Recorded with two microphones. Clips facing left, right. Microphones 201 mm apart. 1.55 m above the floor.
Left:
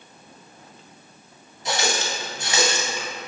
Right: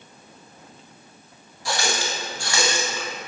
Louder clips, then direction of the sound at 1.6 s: Left 1 dB; 20° left (ahead or behind).